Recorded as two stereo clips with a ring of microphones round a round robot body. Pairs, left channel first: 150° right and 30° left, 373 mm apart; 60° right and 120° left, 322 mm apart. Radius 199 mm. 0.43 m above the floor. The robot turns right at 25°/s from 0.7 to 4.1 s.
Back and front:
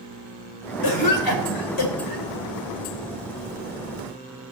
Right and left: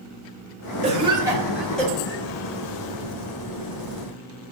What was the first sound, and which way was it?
A cough, 170° right.